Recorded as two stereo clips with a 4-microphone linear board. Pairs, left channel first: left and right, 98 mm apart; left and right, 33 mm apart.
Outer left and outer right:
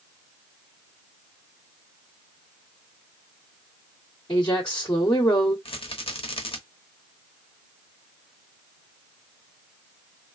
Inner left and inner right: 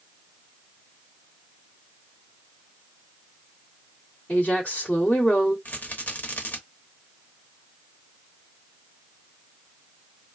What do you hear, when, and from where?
4.3 s a woman speaking: 40° left (ahead or behind), 1.4 m
5.7 s a rattle: 65° left (ahead or behind), 0.8 m